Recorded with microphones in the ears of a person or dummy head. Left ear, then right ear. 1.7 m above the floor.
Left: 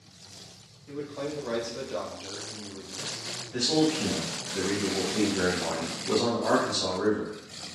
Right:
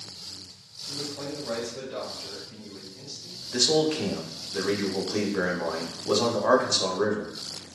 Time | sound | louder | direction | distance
0.9 | a man speaking | even | 50° left (ahead or behind) | 1.1 m
3.5 | a man speaking | right 3 dB | 85° right | 0.6 m